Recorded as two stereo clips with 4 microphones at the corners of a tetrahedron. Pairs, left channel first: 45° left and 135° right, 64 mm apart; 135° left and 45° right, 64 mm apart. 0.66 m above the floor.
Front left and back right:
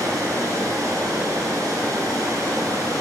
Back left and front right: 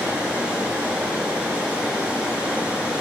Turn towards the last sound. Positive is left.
turn(degrees=-115)